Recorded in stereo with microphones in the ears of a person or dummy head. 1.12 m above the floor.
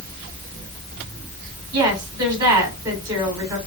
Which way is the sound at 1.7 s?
25° right (ahead or behind).